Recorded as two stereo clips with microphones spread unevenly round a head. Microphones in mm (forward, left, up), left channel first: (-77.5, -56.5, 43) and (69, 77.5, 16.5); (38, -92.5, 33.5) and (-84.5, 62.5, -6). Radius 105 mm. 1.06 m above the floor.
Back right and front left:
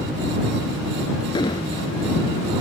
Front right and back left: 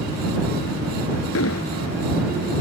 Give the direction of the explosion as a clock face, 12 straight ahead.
2 o'clock.